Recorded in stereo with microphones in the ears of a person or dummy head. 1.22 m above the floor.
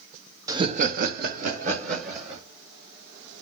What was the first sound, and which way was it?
Laughter, 15° right (ahead or behind).